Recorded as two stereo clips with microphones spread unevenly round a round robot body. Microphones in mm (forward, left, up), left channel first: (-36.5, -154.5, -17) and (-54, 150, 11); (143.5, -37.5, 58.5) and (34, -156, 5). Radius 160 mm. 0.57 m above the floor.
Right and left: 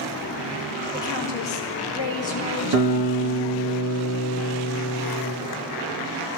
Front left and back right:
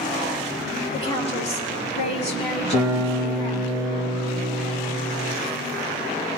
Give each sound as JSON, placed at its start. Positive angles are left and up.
{"t": 0.9, "sound": "a woman speaking", "azimuth_deg": -5, "distance_m": 5.5}
{"t": 2.7, "sound": "a guitar", "azimuth_deg": 115, "distance_m": 3.5}